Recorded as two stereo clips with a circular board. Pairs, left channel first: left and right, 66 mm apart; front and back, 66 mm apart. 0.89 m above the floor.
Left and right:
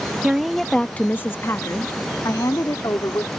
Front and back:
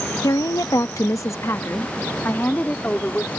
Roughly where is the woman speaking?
Ahead.